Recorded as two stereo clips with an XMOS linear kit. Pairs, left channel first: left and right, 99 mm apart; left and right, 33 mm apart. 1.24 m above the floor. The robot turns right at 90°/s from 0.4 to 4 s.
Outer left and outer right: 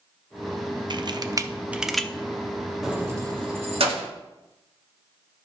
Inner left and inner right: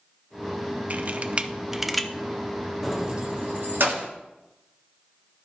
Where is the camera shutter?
45° right (ahead or behind), 0.5 m; by 2.1 s 10° left (ahead or behind), 0.5 m.